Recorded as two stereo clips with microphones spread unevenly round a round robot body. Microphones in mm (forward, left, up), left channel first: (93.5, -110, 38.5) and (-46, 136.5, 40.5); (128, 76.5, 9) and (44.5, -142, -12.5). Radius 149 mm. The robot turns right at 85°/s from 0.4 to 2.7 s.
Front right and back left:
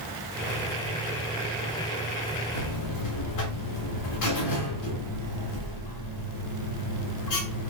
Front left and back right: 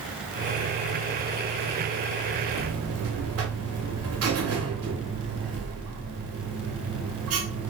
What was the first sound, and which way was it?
A buzzer, 105° right.